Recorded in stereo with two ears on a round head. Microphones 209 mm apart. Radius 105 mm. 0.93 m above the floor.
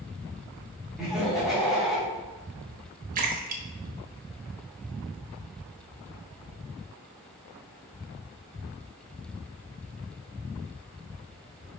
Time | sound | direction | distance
1.0 | laughter | centre (ahead or behind) | 3 m
3.1 | a splash | 35° right (ahead or behind) | 1.3 m